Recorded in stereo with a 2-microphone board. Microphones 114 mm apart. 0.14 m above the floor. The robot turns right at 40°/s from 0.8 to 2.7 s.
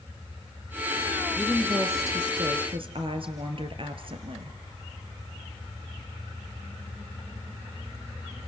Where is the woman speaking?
170° right, 2 m; by 4.6 s 115° right, 2 m.